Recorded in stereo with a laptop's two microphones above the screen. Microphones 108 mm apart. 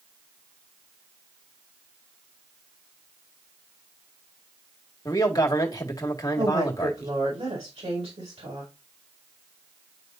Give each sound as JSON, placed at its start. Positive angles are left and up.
{"t": 5.0, "sound": "a man speaking", "side_deg": 30, "distance_m": 1.9}
{"t": 6.4, "sound": "a woman speaking", "side_deg": -75, "distance_m": 5.0}